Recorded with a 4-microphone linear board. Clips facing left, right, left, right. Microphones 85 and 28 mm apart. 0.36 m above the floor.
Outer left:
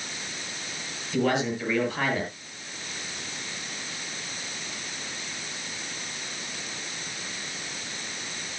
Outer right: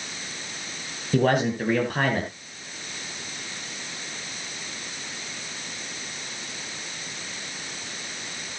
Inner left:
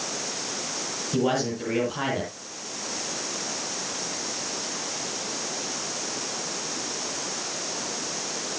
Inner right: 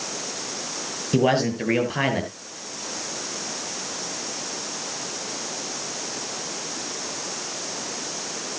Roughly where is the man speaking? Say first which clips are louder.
Outer right 4 dB, inner right 5 dB; right.